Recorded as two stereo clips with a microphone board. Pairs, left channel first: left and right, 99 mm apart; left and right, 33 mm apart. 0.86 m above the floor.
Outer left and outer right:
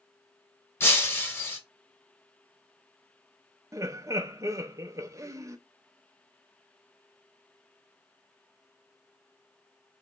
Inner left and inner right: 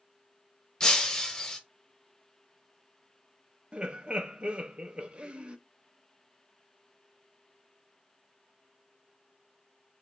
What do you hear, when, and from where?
0.8 s breaking glass: 25° left (ahead or behind), 0.9 m
3.7 s laughter: 30° right (ahead or behind), 0.6 m